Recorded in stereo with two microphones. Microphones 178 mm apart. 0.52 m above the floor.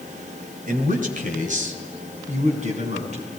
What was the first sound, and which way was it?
A man speaking, 50° right (ahead or behind).